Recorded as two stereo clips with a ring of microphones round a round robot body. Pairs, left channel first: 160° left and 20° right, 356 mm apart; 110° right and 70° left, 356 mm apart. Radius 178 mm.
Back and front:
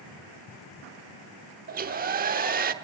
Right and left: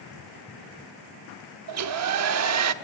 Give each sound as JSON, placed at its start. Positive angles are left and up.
{"t": 1.7, "sound": "a hair dryer", "azimuth_deg": 35, "distance_m": 0.9}